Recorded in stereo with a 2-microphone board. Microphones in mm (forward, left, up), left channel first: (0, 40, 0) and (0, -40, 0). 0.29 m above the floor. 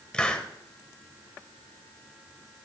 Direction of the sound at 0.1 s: 10° left (ahead or behind).